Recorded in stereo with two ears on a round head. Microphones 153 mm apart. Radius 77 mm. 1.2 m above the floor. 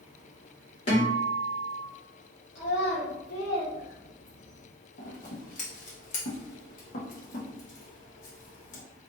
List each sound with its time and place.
0.9 s a guitar: 40° left (ahead or behind), 1.7 m
2.5 s a child speaking: 75° left (ahead or behind), 0.9 m
5.0 s scissors: 50° left (ahead or behind), 1.1 m